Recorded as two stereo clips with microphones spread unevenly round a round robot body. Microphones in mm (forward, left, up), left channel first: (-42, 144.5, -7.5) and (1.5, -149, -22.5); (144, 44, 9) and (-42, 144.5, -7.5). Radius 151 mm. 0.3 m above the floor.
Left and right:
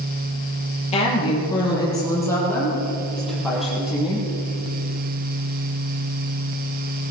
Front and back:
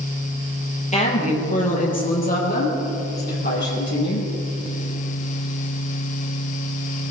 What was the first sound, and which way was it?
A woman speaking, 30° left.